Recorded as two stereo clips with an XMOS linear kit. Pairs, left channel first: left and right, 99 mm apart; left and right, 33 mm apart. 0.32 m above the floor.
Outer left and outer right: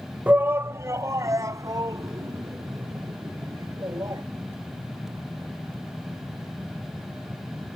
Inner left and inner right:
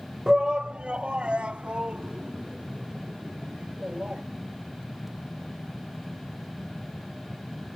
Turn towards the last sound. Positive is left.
turn(degrees=-30)  # may be behind; listen again after turning